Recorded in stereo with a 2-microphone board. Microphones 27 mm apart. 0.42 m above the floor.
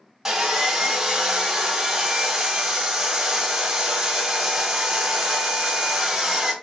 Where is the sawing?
20° right (ahead or behind), 1.5 m.